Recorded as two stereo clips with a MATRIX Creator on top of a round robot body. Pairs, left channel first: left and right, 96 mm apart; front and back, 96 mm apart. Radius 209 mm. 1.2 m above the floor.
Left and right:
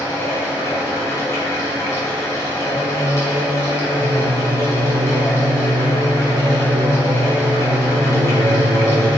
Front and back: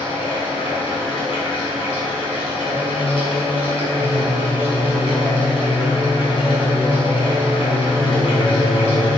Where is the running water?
30° left, 4 m.